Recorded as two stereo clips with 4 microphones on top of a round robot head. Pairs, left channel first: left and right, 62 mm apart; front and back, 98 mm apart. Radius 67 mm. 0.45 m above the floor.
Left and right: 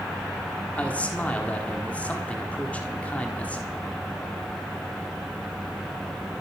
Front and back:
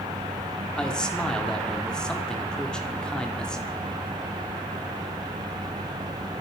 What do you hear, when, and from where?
0.8 s a man speaking: 70° left, 1.4 m